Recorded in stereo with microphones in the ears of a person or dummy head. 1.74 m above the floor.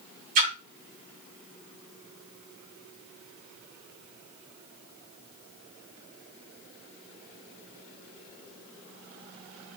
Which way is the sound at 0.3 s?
30° right (ahead or behind).